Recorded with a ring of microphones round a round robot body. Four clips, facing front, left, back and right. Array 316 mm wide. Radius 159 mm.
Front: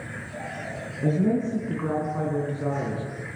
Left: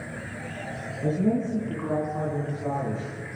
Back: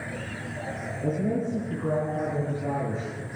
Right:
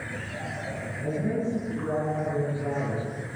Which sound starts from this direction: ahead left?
A woman speaking, at 1.0 s.